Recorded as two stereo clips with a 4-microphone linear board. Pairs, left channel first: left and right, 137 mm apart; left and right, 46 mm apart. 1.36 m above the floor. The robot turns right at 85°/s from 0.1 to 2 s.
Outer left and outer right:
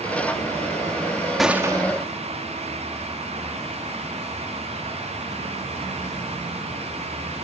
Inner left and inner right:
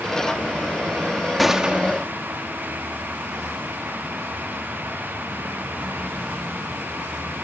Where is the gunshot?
Straight behind; by 2.1 s 130° right.